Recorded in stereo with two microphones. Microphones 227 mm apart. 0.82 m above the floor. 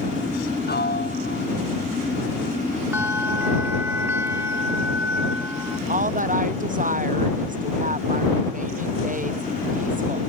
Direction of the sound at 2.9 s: 10° right (ahead or behind).